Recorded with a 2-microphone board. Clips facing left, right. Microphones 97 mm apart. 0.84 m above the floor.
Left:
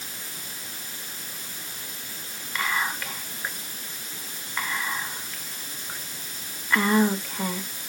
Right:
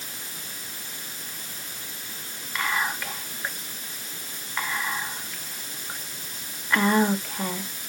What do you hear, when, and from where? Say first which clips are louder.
2.5 s whispering: even; centre (ahead or behind), 1.5 m